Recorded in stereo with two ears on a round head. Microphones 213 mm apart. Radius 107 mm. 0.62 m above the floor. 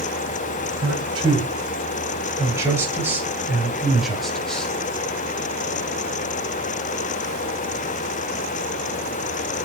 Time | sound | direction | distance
0.8 | a man speaking | 25° right (ahead or behind) | 4 m